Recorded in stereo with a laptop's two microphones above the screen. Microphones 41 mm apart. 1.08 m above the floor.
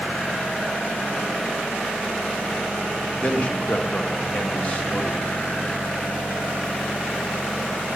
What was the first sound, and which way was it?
A man speaking, 30° left (ahead or behind).